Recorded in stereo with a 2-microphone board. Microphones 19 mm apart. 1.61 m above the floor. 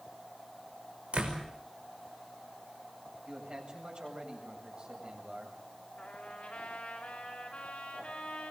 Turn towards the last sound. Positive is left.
turn(degrees=70)  # may be behind; listen again after turning